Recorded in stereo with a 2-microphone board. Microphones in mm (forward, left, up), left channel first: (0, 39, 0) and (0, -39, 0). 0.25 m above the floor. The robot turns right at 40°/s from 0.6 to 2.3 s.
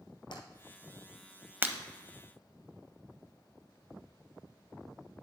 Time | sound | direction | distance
0.3 | tapping | 85° left | 1.2 m
1.6 | breaking glass | 25° right (ahead or behind) | 0.6 m